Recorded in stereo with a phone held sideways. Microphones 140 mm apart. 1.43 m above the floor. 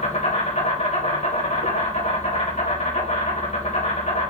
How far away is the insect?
About 3.5 m.